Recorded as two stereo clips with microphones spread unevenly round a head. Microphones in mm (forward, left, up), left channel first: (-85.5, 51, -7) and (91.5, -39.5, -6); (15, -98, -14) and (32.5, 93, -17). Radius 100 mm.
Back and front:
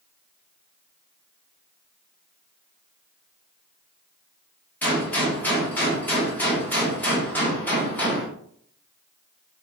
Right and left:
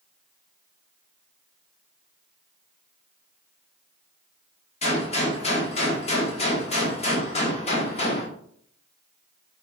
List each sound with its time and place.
4.8 s a gunshot: 130° right, 1.1 m